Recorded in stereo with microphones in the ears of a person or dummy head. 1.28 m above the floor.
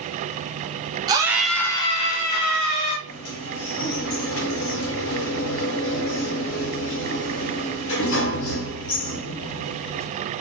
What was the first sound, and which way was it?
A scream, 15° right (ahead or behind).